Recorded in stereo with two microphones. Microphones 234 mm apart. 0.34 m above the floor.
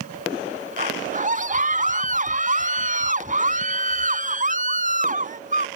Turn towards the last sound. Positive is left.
turn(degrees=-30)  # may be behind; listen again after turning